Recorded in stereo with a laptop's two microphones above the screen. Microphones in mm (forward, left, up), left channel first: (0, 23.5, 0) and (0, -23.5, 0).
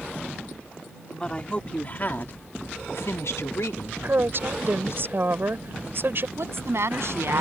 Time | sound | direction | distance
1.1 | a woman speaking | 20° left (ahead or behind) | ?
4.0 | a woman speaking | 50° right (ahead or behind) | ?
6.4 | a woman speaking | 65° right (ahead or behind) | ?